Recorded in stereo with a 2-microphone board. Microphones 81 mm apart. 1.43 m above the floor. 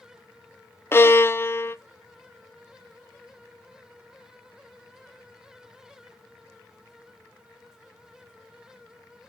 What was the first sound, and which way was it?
A violin, 30° left (ahead or behind).